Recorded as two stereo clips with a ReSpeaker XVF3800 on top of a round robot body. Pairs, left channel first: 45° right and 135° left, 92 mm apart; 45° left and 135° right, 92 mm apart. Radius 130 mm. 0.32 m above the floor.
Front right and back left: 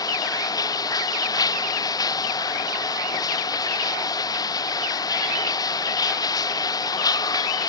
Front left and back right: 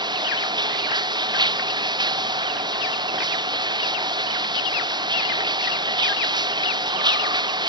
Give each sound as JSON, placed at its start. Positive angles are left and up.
{"t": 0.0, "sound": "running water", "azimuth_deg": -95}